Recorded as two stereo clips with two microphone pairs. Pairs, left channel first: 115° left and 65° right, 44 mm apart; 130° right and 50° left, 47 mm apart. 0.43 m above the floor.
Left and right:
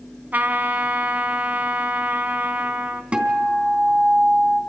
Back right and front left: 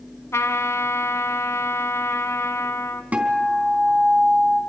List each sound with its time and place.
0.3 s a trumpet: 115° right, 1.4 m
3.1 s a guitar: 5° right, 3.5 m